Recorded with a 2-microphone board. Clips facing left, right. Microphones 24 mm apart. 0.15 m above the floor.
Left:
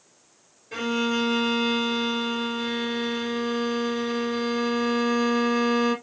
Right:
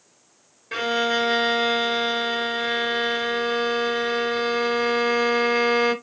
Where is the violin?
55° right (ahead or behind), 1.5 m.